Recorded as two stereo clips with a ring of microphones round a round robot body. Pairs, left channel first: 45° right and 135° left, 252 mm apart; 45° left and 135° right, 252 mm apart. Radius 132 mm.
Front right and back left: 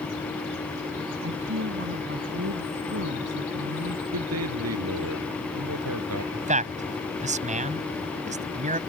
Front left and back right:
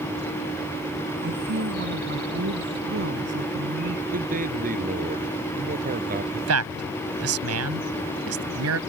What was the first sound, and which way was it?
A woman speaking, 175° left.